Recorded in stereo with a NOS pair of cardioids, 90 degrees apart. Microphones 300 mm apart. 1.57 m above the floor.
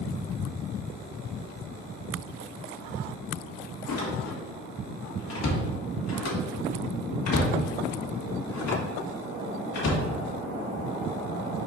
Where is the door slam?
60° left, 2 m.